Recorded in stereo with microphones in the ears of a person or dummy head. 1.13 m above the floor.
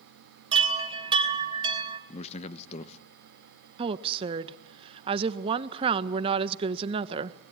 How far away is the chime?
About 3 m.